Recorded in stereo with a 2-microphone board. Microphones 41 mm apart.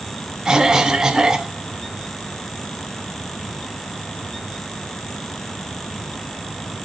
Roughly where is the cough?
Centre.